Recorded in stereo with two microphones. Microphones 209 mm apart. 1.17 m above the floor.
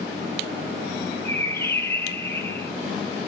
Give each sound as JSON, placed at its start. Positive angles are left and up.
{"t": 1.2, "sound": "a bird", "side_deg": 10, "distance_m": 0.7}